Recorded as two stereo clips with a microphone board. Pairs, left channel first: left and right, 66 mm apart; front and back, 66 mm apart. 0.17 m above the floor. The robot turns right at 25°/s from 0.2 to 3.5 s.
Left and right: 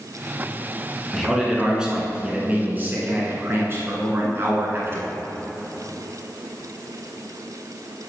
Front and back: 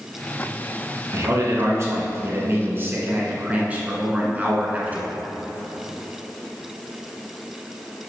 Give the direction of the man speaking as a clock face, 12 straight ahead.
6 o'clock.